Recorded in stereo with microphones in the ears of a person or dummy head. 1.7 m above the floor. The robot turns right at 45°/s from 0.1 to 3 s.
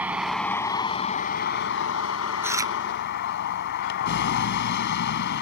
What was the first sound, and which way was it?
A vehicle, 10° right.